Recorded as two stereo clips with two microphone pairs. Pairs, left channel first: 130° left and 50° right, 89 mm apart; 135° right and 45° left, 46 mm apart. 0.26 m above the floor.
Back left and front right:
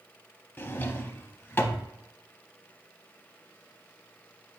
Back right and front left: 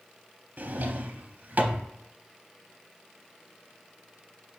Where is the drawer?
70° left, 0.5 m.